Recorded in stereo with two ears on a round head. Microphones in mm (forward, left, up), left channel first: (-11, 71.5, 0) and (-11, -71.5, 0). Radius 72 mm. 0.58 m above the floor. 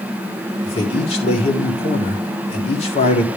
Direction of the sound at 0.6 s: 40° left (ahead or behind).